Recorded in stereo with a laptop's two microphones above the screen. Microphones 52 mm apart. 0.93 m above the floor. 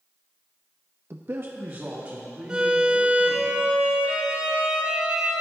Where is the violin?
20° right (ahead or behind), 3 m.